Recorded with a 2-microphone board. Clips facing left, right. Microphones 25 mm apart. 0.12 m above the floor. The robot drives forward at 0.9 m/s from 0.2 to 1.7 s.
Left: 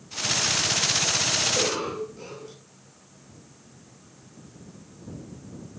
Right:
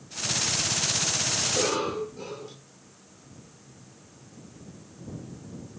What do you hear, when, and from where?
1.4 s a cough: 5° left (ahead or behind), 2.5 m